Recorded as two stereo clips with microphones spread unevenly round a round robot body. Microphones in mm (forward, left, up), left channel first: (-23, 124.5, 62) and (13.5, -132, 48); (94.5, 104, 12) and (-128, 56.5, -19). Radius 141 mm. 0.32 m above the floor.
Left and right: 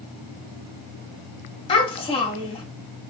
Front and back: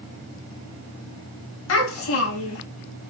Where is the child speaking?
30° left, 1.8 m.